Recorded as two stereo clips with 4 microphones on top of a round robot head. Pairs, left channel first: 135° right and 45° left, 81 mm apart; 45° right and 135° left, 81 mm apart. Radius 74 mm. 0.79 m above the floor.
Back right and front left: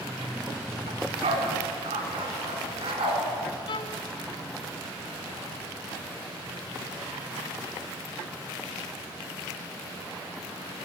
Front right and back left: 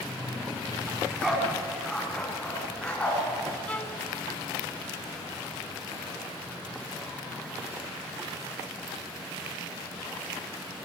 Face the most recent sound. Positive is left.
turn(degrees=-120)